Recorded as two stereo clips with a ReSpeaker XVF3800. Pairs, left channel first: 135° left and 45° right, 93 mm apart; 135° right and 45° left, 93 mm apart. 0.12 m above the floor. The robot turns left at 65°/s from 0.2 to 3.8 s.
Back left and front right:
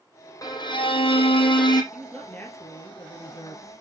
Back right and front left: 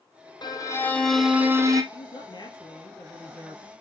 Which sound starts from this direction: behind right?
A man speaking, at 1.9 s.